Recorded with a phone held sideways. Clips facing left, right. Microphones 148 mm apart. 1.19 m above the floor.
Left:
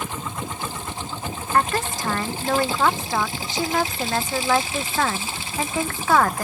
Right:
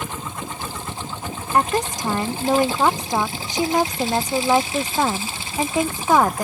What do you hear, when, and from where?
1.5 s a woman speaking: 15° right (ahead or behind)